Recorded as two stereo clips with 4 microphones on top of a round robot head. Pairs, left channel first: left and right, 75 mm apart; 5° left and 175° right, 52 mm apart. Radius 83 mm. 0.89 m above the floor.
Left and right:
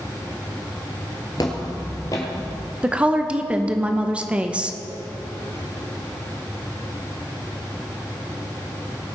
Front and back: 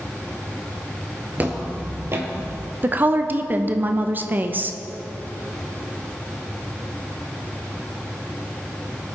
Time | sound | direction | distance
1.4 | footsteps | 135° left | 1.1 m
2.8 | a woman speaking | 160° right | 0.8 m